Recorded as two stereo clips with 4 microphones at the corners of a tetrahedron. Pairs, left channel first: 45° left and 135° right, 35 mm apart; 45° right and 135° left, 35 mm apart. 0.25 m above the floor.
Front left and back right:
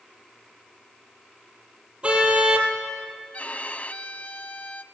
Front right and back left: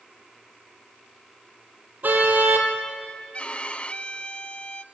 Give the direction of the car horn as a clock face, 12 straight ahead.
6 o'clock.